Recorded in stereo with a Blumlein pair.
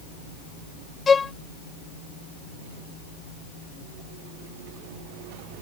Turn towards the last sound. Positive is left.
turn(degrees=15)